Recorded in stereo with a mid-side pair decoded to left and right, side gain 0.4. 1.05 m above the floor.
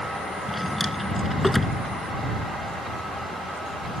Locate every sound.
0.5 s a drawer: 5° left